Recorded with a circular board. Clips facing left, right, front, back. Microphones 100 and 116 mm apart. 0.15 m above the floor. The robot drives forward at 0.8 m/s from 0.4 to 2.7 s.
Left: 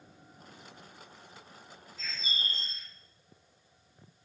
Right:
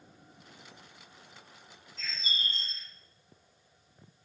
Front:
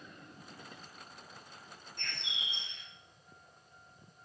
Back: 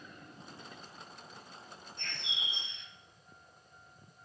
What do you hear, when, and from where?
2.0 s a bird: 15° left, 3.5 m